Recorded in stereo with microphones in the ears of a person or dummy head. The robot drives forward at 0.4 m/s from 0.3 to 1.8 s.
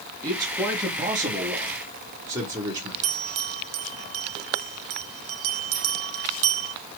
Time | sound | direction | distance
0.2 | a man speaking | 15° right (ahead or behind) | 2 m
3.0 | a bell | 65° right (ahead or behind) | 0.6 m